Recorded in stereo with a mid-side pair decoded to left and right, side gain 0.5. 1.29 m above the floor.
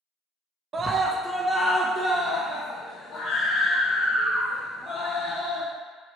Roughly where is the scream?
Ahead right.